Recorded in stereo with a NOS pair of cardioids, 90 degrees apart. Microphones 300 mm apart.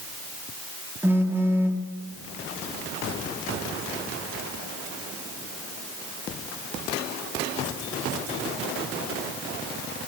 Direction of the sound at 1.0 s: 10° right.